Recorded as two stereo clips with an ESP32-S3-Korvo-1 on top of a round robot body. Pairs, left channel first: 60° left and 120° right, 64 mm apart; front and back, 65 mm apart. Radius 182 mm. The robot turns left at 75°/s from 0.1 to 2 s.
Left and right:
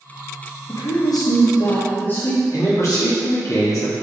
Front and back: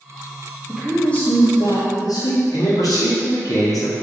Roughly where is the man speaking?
Ahead.